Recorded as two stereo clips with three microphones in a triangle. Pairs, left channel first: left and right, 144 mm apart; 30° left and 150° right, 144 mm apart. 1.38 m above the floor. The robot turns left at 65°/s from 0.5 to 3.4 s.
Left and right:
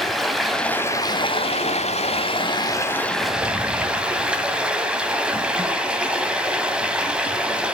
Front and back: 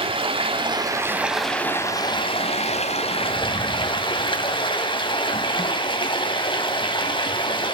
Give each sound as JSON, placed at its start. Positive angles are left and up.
{"t": 0.0, "sound": "running water", "azimuth_deg": 180, "distance_m": 1.6}